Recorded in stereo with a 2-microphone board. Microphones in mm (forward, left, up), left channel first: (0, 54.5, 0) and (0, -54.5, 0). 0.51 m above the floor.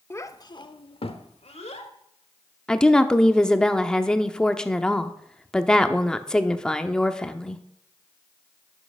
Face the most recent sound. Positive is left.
turn(degrees=5)  # may be behind; listen again after turning